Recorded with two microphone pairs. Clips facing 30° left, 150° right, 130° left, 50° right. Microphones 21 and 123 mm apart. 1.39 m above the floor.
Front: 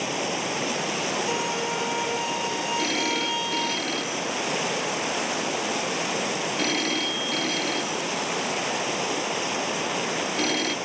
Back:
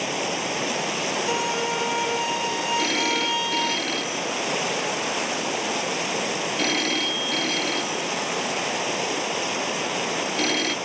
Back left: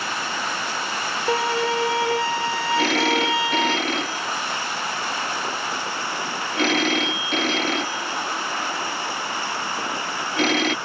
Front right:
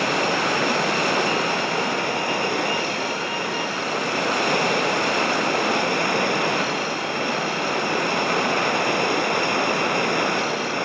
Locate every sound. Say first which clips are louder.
0.0 s running water: back 1 dB, front right 7 dB; 70° right
1.3 s a violin: back 2 dB, back left 2 dB; 130° left
2.8 s a phone ringing: back 2 dB, back left 5 dB; 125° left